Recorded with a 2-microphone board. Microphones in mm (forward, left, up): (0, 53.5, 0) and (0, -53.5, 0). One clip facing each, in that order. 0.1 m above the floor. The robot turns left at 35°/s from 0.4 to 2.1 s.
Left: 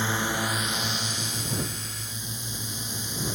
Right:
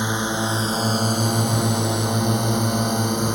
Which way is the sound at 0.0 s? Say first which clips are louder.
Right 5 dB; 20° right (ahead or behind).